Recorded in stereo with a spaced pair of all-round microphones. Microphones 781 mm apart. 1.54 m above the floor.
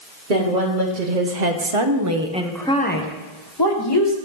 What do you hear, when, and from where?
0.3 s a woman speaking: 80° right, 1.3 m; by 4.2 s 35° left (ahead or behind), 1.8 m